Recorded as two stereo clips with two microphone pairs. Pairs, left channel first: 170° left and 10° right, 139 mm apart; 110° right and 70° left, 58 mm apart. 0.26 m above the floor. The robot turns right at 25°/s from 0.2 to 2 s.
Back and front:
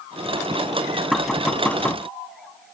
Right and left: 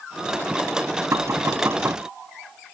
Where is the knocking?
75° left; by 2.0 s 100° left.